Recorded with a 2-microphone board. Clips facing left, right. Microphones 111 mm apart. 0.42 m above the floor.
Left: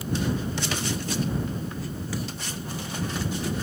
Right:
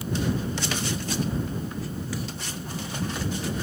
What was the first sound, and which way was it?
Only background noise.